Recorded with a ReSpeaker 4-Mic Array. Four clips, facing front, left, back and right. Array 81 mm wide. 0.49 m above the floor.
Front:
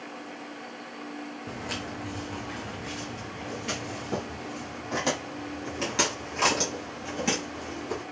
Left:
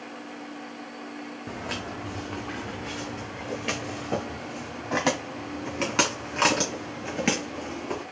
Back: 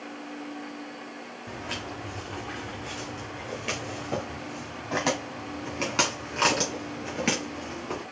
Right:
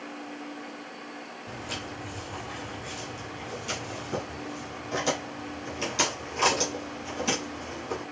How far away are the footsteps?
About 1.2 m.